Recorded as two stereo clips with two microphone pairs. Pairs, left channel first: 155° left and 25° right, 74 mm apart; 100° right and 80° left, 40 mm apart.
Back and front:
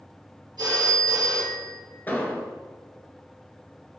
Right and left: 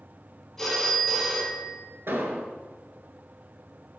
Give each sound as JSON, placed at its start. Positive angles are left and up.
{"t": 0.6, "sound": "a phone ringing", "azimuth_deg": -15, "distance_m": 3.0}
{"t": 2.1, "sound": "an explosion", "azimuth_deg": 85, "distance_m": 0.9}